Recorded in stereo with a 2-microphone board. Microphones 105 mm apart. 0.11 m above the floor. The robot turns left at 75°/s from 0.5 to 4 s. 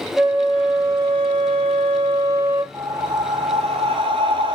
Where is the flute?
5° right, 1.5 m; by 2.6 s 165° right, 1.5 m.